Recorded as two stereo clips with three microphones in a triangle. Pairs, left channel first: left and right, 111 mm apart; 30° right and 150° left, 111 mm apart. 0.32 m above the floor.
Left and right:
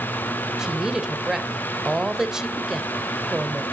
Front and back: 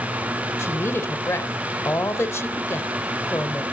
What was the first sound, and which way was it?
A woman speaking, 15° right.